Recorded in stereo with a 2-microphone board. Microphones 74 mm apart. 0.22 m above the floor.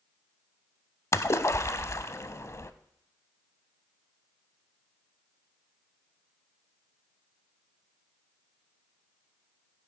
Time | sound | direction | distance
1.1 | a splash | 40° left (ahead or behind) | 0.5 m